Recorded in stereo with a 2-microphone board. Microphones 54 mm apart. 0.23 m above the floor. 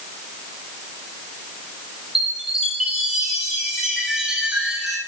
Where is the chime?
5° right (ahead or behind), 4.5 m.